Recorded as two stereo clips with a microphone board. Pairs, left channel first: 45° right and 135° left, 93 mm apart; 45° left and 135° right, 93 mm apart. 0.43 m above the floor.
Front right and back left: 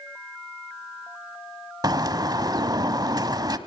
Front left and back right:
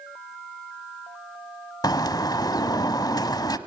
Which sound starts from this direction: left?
A bird, at 1.8 s.